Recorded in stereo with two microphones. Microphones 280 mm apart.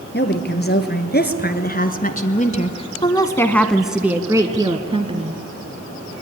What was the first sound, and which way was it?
A woman speaking, 40° left (ahead or behind).